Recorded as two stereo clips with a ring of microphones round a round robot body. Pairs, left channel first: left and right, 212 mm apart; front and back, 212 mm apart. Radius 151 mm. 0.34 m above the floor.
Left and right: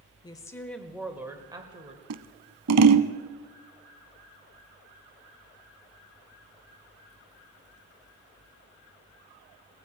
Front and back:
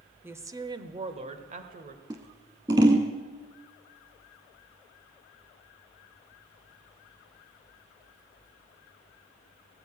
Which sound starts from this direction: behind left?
A woman speaking, at 0.2 s.